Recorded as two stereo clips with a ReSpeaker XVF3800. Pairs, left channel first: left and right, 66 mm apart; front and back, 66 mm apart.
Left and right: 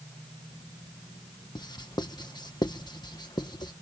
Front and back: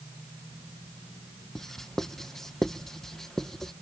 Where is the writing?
85° left.